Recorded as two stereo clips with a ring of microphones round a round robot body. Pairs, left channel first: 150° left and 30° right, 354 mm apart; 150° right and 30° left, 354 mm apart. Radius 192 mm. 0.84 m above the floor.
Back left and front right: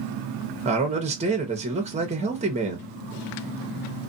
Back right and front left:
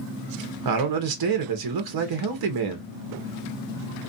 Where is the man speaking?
40° left, 0.9 m.